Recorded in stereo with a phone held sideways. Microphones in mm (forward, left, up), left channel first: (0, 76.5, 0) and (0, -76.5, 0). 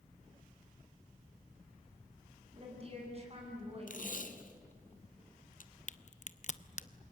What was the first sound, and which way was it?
A woman speaking, 40° right (ahead or behind).